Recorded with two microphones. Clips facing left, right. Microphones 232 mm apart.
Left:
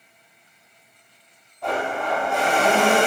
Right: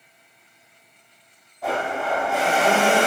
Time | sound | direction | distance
1.6 | a blender | 5° right (ahead or behind) | 0.8 m